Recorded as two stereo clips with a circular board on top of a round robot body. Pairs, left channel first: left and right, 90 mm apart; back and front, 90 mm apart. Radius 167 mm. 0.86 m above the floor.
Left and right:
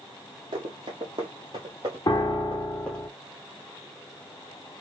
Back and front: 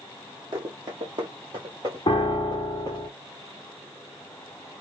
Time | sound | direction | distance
0.5 | running footsteps | 50° right | 1.5 m
2.1 | a piano | 140° left | 0.6 m